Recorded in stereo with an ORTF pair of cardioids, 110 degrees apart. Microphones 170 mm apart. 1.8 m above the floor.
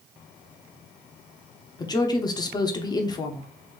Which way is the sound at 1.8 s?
25° left.